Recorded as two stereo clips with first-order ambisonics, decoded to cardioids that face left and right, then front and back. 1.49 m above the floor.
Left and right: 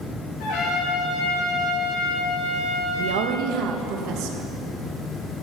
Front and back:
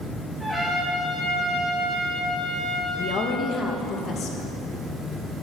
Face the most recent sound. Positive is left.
turn(degrees=-60)